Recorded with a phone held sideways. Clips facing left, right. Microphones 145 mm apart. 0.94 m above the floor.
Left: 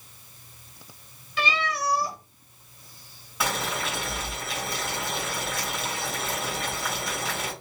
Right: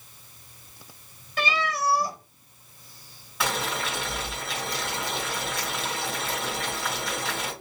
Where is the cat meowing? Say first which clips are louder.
Right 1 dB; 45° right (ahead or behind), 1.0 m.